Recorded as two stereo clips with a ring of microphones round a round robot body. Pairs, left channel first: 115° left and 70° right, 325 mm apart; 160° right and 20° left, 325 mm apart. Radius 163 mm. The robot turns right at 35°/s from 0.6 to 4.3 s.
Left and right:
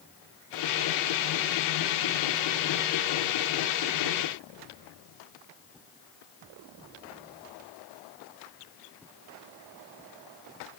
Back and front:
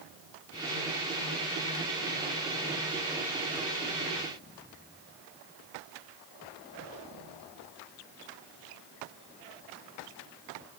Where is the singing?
No singing in this recording.